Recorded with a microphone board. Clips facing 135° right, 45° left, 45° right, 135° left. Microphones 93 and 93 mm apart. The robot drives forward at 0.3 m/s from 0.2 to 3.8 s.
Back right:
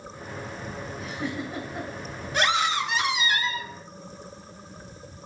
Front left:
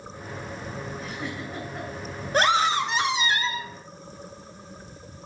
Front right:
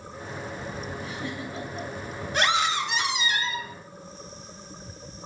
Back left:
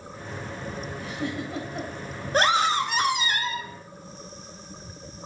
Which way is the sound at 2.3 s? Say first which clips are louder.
Front left 3 dB, back left 3 dB; 90° left.